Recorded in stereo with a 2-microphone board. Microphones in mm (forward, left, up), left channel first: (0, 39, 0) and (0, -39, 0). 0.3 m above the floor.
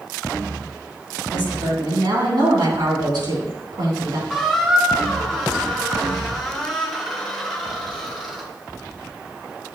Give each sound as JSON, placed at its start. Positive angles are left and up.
{"t": 1.3, "sound": "a woman speaking", "side_deg": -65, "distance_m": 3.0}
{"t": 4.3, "sound": "a squeak", "side_deg": 0, "distance_m": 1.4}